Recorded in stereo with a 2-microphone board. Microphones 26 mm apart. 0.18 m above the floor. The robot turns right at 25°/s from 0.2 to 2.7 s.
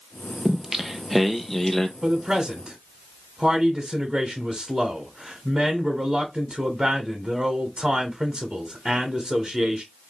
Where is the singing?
20° right, 0.8 m; by 1.9 s 20° left, 0.8 m.